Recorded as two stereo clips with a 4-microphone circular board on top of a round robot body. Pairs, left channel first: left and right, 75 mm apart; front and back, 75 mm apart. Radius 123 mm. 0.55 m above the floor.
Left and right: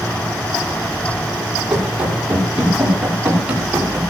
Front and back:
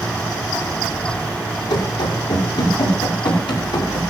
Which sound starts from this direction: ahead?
Running footsteps, at 1.7 s.